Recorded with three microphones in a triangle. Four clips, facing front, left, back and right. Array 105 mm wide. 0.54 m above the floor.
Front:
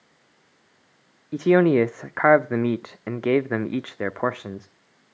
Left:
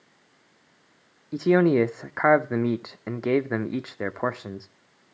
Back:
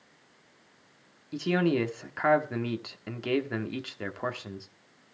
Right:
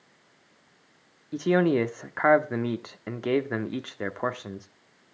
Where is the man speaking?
15° left, 0.9 m.